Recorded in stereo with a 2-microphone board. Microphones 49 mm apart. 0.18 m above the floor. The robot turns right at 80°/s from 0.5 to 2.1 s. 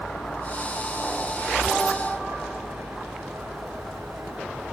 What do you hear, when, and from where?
0.0 s a vehicle: 70° left (ahead or behind); by 4.8 s 65° right (ahead or behind)